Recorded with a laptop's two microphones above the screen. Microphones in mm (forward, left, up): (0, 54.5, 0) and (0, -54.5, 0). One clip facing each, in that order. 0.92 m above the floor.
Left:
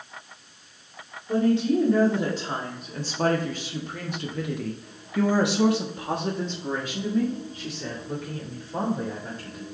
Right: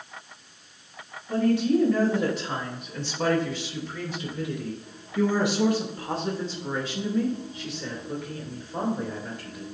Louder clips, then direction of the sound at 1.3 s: Left 1 dB; 20° left (ahead or behind).